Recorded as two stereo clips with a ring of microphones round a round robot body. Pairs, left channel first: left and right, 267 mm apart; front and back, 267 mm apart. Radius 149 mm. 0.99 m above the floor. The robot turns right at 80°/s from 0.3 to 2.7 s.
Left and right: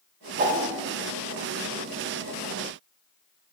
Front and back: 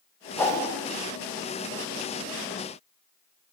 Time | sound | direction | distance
0.4 | a whoosh | 80° right | 0.5 m